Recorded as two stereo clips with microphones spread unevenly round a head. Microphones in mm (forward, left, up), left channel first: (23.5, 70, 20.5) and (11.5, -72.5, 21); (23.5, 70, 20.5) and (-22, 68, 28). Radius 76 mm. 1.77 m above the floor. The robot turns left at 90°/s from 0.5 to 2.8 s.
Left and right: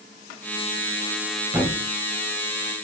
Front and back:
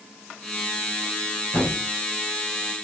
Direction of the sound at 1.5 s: 35° right.